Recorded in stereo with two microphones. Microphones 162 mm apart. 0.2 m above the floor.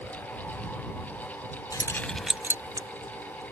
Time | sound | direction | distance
1.7 | keys jangling | 20° left (ahead or behind) | ?